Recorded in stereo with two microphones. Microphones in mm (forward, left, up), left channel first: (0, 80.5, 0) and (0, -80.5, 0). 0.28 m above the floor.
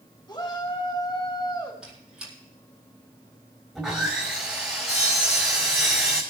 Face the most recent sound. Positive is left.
turn(degrees=-5)  # may be behind; listen again after turning